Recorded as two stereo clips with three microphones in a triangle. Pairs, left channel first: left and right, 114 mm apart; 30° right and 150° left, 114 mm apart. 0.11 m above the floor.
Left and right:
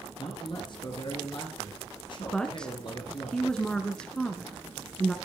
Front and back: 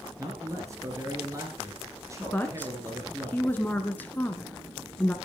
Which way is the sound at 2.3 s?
15° left.